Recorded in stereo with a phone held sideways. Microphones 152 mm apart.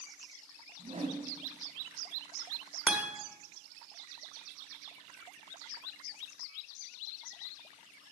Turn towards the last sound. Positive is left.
turn(degrees=-10)  # may be behind; listen again after turning